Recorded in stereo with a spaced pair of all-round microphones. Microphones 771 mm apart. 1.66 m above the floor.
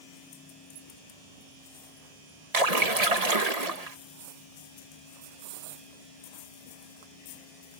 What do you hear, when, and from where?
2.5 s a splash: 50° right (ahead or behind)